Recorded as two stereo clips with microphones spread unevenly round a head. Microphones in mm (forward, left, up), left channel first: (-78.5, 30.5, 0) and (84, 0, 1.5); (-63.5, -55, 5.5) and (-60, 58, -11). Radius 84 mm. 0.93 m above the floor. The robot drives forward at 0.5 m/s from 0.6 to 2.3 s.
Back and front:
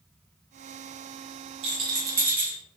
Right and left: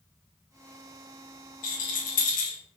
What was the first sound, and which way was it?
A rattle, 70° right.